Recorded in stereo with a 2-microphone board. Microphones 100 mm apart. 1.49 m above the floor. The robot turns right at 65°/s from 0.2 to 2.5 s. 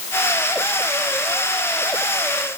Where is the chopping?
No chopping in this recording.